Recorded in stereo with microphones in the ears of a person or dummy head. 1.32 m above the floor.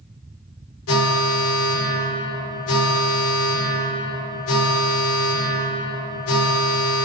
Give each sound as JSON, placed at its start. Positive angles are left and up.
{"t": 0.9, "sound": "an alarm", "side_deg": 80, "distance_m": 4.0}